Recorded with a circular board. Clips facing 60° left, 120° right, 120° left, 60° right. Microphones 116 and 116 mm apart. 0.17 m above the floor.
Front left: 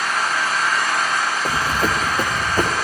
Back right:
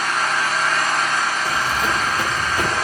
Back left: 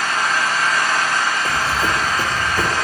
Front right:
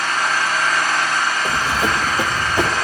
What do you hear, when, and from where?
0.0 s an engine running: 150° left, 3.5 m
1.4 s running footsteps: 15° left, 0.6 m